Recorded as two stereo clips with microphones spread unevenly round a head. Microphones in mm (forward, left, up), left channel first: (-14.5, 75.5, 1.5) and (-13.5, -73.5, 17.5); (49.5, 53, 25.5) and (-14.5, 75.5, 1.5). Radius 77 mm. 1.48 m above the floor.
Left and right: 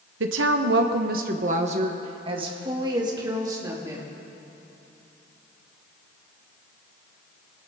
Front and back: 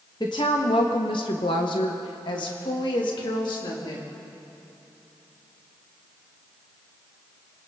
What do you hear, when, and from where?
0.2 s a woman speaking: 85° right, 1.1 m; by 4.1 s 20° right, 3.5 m